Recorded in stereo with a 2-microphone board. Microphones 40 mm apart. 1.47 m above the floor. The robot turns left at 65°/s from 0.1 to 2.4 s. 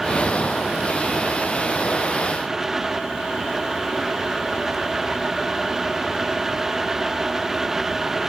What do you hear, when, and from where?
Only background noise.